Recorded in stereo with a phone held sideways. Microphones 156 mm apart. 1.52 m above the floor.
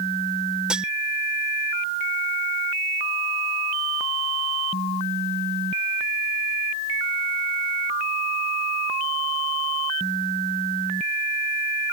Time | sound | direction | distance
0.7 | cutlery clinking | 5° right (ahead or behind) | ?